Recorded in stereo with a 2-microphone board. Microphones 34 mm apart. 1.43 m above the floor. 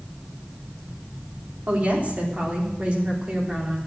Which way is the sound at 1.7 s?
55° right (ahead or behind).